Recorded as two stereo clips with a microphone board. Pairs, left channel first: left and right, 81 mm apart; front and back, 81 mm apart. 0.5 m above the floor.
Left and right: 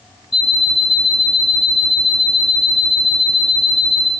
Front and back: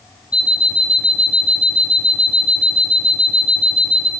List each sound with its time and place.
0.3 s an alarm clock: 105° left, 5 m